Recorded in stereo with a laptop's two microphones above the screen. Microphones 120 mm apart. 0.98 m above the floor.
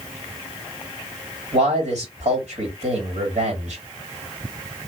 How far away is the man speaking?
About 3 m.